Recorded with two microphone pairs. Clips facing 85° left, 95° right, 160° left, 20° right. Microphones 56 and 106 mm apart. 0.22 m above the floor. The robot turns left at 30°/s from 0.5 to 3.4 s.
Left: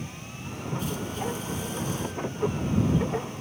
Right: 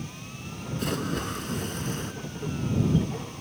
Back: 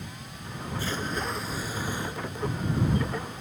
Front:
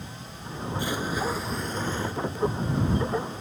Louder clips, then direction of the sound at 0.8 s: Right 4 dB, front 3 dB; 95° right.